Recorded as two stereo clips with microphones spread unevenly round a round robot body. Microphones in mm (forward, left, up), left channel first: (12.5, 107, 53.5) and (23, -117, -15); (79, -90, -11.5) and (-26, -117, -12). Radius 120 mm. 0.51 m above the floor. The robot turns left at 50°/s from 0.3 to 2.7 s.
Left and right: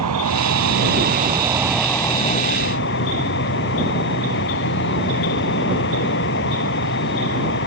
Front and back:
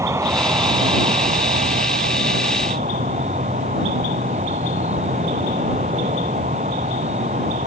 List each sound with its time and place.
0.0 s an insect: 105° right; by 7.7 s 135° left